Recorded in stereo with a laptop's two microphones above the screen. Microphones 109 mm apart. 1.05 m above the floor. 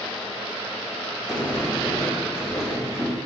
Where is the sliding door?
30° left (ahead or behind), 0.9 m.